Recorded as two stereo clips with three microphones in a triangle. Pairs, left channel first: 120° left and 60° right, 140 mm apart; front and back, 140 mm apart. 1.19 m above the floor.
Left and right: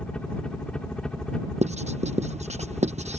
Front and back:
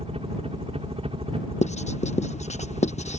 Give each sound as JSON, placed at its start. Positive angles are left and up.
{"t": 0.0, "sound": "a helicopter", "azimuth_deg": -160}
{"t": 1.6, "sound": "writing", "azimuth_deg": -30}